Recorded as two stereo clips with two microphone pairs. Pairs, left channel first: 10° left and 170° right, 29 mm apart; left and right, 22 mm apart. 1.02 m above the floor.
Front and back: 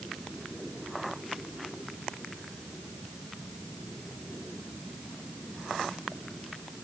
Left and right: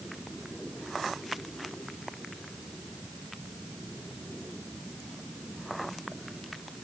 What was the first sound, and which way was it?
Only background noise.